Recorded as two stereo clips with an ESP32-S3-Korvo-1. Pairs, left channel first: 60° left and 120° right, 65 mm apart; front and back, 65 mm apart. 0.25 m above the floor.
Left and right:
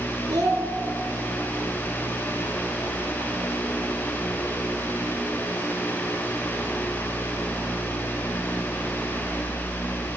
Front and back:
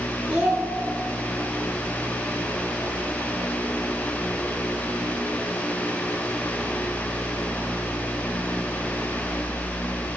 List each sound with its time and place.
0.3 s a child speaking: 105° right, 3.5 m